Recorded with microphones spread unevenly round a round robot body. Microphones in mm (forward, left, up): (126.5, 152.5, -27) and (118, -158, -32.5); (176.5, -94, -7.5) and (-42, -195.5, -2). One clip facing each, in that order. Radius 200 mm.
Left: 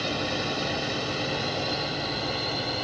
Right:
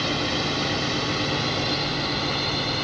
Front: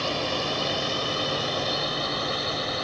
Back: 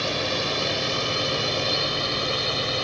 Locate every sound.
0.0 s a drone: 165° right; by 2.8 s 160° right